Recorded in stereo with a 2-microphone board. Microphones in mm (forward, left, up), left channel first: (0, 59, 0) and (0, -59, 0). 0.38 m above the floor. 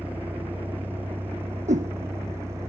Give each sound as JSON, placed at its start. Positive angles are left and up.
{"t": 0.0, "sound": "a vehicle", "side_deg": -15}
{"t": 1.7, "sound": "a whoosh", "side_deg": -85}